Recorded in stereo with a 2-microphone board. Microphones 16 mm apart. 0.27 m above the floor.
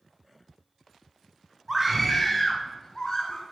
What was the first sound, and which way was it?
A scream, 10° right (ahead or behind).